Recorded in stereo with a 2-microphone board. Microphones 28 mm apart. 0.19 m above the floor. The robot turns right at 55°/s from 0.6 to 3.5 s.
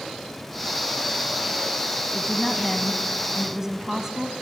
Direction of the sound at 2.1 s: 15° left (ahead or behind).